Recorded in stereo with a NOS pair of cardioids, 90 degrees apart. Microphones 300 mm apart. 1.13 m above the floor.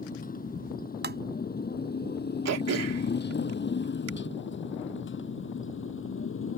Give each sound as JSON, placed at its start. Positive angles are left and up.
{"t": 0.0, "sound": "a motorcycle", "azimuth_deg": 30}
{"t": 1.0, "sound": "tapping", "azimuth_deg": -35}
{"t": 2.5, "sound": "throat clearing", "azimuth_deg": -60}